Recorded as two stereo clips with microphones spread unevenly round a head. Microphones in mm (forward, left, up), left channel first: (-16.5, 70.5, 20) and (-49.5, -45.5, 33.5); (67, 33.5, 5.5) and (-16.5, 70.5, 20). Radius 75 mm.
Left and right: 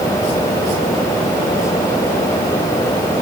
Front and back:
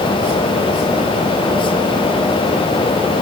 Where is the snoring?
I don't hear snoring.